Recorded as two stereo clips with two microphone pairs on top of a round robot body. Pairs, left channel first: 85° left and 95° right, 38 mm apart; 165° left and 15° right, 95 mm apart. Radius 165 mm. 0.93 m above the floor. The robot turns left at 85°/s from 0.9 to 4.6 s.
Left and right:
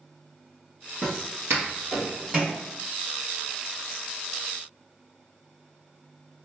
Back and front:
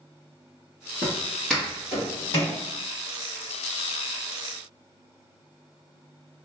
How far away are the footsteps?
About 1.2 m.